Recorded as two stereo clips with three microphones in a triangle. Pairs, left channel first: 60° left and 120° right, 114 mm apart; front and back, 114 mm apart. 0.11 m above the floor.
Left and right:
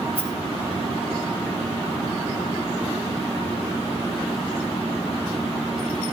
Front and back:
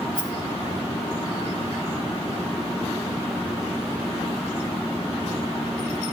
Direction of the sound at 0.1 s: 35° left.